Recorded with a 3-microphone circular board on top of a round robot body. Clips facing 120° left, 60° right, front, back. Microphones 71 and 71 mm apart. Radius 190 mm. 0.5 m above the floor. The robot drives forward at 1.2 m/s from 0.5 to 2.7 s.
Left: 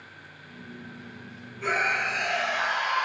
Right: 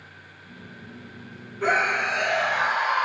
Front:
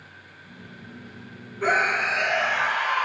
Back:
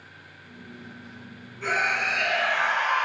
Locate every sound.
1.6 s a scream: 35° right, 1.7 m; by 3.0 s 95° right, 1.2 m